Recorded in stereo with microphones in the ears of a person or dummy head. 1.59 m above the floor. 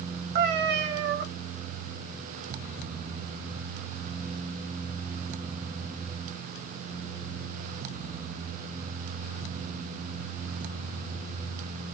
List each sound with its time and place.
0.3 s a cat meowing: 65° right (ahead or behind), 1.6 m